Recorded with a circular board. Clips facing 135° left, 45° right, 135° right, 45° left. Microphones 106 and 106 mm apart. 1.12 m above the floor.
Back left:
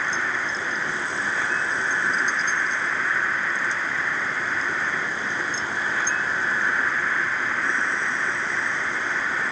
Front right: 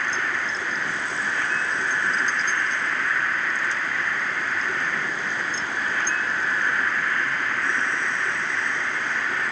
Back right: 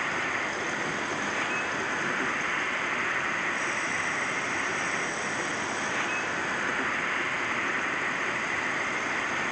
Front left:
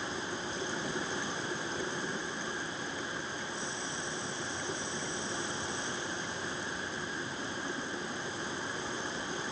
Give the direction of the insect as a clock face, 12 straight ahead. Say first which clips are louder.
Even, back right 6 dB; 5 o'clock.